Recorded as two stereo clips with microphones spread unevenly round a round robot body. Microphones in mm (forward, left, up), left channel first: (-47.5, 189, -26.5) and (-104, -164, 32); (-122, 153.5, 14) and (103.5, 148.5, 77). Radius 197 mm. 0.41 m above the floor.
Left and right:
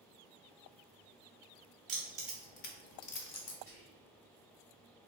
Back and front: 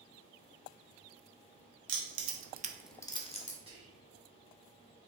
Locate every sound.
1.9 s keys jangling: 25° right, 0.9 m; by 3.6 s 125° left, 1.3 m
3.7 s whispering: 75° left, 1.1 m